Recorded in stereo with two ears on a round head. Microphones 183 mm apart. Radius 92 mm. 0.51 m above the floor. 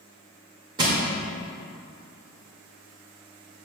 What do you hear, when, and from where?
0.8 s crushing: 20° right (ahead or behind), 1.6 m